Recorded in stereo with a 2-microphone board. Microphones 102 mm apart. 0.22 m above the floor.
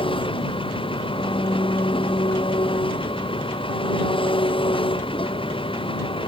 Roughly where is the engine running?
Left.